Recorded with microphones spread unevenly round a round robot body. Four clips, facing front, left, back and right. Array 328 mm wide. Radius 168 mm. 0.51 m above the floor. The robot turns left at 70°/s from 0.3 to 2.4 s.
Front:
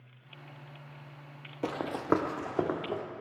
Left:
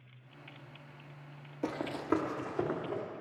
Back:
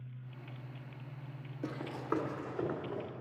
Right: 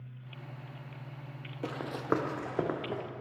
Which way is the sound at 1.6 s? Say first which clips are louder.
Even, front 8 dB; 25° left.